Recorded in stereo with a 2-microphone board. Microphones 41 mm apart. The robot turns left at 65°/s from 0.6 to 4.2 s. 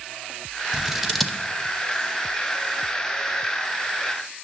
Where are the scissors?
20° right (ahead or behind), 0.7 m; by 1.4 s 10° left (ahead or behind), 0.7 m.